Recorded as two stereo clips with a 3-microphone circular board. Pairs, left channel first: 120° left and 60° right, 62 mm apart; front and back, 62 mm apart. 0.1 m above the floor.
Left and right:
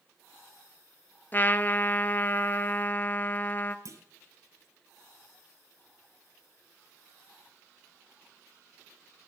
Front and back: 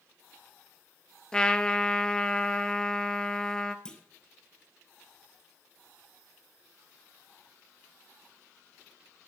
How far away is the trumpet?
About 0.6 m.